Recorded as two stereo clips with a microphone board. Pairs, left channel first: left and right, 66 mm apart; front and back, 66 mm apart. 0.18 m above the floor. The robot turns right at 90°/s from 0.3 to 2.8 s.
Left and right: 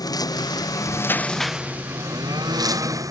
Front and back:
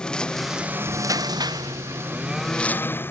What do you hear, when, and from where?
0.0 s a lawn mower: 75° left; by 3.1 s 60° right